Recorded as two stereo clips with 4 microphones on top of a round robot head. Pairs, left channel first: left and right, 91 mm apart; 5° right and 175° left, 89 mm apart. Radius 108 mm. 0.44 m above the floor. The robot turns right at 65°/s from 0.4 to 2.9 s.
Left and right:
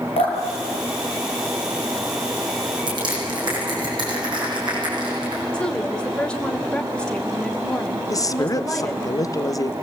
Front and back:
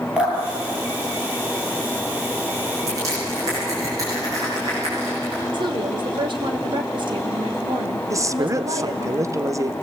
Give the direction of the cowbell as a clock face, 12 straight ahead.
No cowbell in this recording.